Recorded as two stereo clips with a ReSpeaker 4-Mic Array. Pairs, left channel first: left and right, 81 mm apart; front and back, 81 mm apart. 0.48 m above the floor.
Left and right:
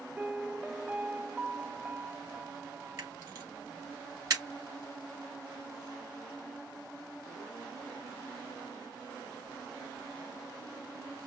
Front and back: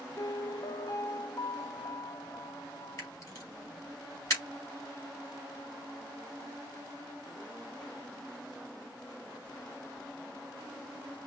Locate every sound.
0.2 s a piano: 15° right, 0.5 m
3.0 s a camera shutter: 45° right, 3.5 m